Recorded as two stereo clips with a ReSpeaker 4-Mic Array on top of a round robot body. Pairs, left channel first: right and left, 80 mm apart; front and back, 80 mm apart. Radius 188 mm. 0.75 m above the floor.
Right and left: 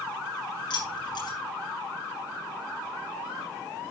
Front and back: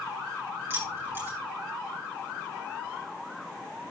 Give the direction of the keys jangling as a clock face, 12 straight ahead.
4 o'clock.